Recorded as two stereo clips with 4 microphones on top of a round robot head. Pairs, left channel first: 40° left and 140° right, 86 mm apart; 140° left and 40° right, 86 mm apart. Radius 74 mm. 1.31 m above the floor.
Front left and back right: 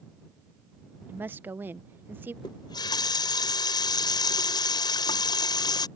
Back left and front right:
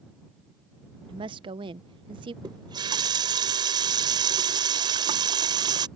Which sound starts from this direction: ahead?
A running tap, at 2.4 s.